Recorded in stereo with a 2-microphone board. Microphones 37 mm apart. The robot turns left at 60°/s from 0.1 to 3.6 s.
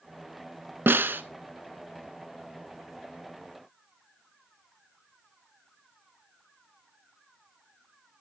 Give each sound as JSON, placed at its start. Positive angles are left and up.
{"t": 0.9, "sound": "a snare drum", "side_deg": -80, "distance_m": 0.6}